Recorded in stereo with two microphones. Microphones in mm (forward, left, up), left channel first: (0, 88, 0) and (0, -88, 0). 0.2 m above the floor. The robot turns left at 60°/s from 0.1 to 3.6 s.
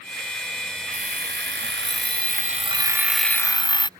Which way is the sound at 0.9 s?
45° right.